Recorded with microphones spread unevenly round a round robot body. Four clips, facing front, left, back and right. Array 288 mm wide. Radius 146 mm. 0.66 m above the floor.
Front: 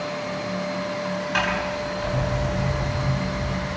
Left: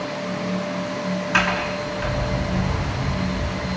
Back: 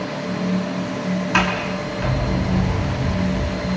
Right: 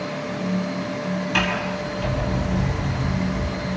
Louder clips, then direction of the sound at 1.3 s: Left 4 dB, back 3 dB; 175° right.